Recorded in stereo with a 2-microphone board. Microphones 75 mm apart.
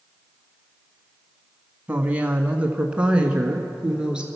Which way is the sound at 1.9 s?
20° right (ahead or behind).